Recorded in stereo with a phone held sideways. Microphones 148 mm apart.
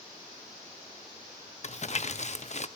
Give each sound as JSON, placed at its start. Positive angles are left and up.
{"t": 1.6, "sound": "crumpling", "side_deg": 50, "distance_m": 0.7}